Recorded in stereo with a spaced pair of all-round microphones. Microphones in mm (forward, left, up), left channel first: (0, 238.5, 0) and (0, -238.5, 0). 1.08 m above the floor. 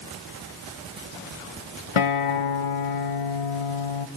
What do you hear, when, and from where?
2.0 s a guitar: 85° left, 0.6 m